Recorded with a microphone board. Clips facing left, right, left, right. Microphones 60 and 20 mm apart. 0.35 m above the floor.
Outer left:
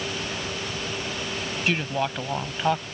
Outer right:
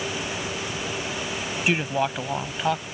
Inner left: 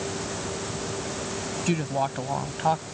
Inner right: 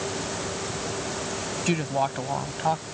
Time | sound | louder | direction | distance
1.7 | a woman speaking | outer right 2 dB, inner right 1 dB | 15° right (ahead or behind) | ?